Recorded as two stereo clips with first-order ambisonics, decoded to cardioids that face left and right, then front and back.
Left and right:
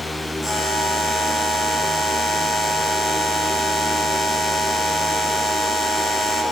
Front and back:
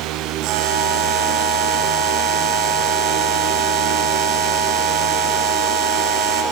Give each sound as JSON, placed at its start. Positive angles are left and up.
{"t": 0.4, "sound": "a buzzer", "azimuth_deg": 175, "distance_m": 2.0}